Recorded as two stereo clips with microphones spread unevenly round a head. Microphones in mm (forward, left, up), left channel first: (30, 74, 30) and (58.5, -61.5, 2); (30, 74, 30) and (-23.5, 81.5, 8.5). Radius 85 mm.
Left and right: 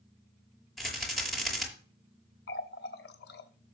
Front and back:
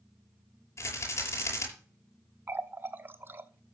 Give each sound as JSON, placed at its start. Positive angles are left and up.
{"t": 0.8, "sound": "a rattle", "azimuth_deg": 15, "distance_m": 6.0}
{"t": 2.5, "sound": "a running tap", "azimuth_deg": 120, "distance_m": 1.1}